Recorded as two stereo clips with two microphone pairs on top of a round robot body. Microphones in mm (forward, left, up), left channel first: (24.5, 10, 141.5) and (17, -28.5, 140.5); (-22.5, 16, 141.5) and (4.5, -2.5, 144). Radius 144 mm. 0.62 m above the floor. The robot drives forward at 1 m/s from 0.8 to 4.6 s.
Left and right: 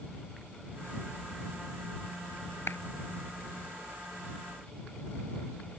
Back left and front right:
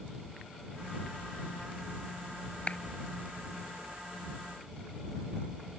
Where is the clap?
85° left.